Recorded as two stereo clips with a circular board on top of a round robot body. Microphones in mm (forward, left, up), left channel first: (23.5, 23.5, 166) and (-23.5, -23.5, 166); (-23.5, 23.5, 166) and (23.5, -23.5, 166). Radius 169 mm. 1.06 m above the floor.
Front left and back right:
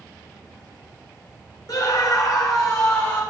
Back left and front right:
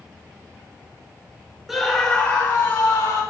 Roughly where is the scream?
Ahead left.